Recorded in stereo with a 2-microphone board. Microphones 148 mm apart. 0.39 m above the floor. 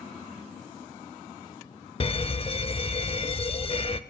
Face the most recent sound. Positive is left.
turn(degrees=40)  # may be behind; listen again after turning